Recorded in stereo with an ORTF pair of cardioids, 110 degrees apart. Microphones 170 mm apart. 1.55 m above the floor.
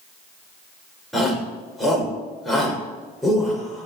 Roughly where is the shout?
Ahead.